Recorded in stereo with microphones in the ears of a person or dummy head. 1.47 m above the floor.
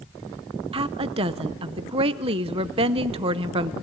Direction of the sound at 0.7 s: 30° right (ahead or behind).